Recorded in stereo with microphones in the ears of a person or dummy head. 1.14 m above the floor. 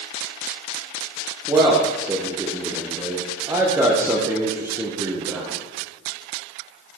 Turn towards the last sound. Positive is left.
turn(degrees=-10)  # may be behind; listen again after turning